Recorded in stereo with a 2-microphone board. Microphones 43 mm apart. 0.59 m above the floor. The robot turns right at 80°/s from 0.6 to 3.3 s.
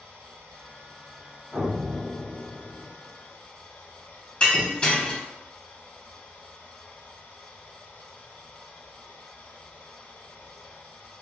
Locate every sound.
0.0 s running water: 100° right, 1.0 m; by 11.2 s 115° left, 1.0 m
1.5 s an explosion: 35° left, 1.3 m; by 2.9 s 150° left, 1.3 m
4.4 s breaking glass: 25° left (ahead or behind), 0.9 m